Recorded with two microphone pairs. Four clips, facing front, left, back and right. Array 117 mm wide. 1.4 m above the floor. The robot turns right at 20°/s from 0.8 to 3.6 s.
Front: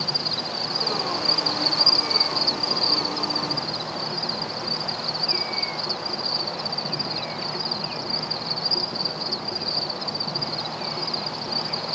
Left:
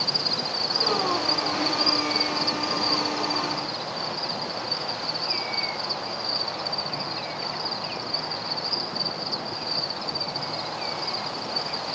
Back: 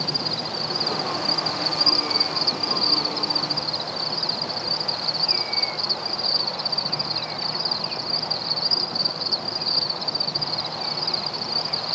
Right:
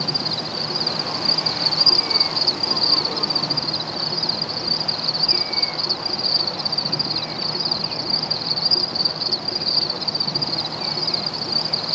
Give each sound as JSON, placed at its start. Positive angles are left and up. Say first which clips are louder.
{"t": 0.0, "sound": "an insect", "louder": "right 3 dB, back 1 dB", "azimuth_deg": -120, "distance_m": 0.8}